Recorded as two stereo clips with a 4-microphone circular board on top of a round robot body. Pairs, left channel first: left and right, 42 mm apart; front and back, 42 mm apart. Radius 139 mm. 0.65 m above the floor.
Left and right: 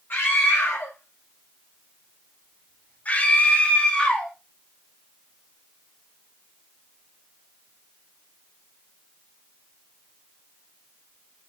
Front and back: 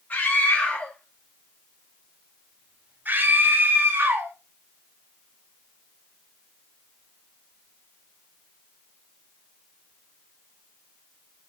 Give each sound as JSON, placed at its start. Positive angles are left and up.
{"t": 0.1, "sound": "a scream", "azimuth_deg": 50, "distance_m": 2.0}